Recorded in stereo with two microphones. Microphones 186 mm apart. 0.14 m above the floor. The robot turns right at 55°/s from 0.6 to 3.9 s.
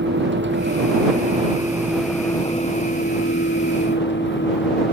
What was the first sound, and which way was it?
A vehicle, 75° right.